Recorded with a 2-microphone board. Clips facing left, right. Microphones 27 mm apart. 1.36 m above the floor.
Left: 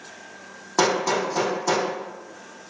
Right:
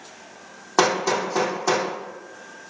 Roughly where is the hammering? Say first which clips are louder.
Right 1 dB; right.